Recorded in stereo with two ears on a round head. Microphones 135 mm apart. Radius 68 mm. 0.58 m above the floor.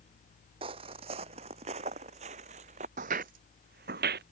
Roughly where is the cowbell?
No cowbell in this recording.